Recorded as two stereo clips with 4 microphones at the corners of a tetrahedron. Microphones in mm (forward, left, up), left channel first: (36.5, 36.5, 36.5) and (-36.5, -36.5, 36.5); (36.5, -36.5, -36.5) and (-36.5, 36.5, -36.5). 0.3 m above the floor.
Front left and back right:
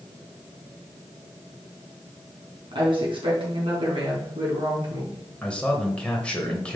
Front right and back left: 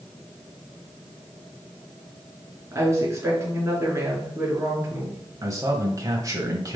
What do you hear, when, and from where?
2.7 s a woman speaking: 165° right, 4 m
5.4 s a man speaking: 120° left, 1.3 m